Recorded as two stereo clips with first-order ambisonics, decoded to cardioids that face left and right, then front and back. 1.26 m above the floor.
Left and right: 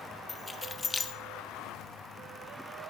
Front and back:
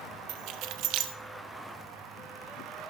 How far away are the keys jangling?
About 0.9 m.